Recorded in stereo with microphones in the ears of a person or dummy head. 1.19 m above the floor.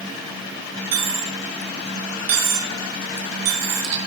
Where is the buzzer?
No buzzer in this recording.